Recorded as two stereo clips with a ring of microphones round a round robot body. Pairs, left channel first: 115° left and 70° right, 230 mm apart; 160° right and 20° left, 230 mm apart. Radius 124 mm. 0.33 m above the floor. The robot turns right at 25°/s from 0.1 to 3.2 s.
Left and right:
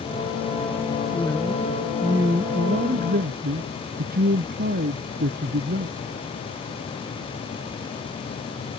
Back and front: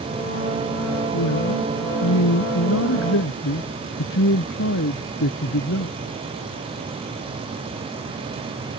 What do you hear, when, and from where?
1.1 s a man speaking: 170° right; by 6.0 s 120° right